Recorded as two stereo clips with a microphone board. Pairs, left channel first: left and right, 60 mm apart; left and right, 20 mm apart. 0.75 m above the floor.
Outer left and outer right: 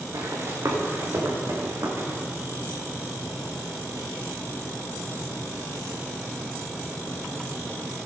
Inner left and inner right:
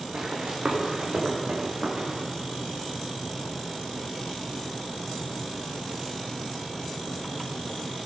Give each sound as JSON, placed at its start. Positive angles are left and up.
{"t": 0.1, "sound": "running footsteps", "side_deg": -65, "distance_m": 3.5}